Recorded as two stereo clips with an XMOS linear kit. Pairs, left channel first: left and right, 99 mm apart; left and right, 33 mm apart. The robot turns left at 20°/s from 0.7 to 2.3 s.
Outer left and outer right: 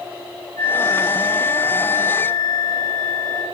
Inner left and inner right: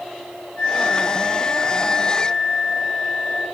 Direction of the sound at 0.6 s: 25° left (ahead or behind).